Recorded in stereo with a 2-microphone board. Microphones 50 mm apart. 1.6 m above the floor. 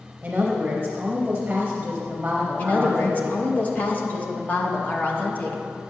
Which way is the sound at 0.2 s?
25° right (ahead or behind).